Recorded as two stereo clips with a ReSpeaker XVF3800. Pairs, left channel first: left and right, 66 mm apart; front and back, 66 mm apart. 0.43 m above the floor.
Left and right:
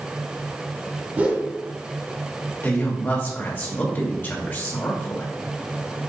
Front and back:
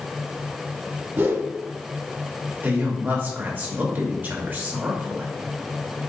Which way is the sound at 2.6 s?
135° left.